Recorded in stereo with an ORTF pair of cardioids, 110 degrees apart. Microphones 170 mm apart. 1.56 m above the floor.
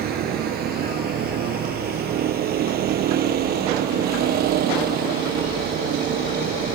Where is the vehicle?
65° right.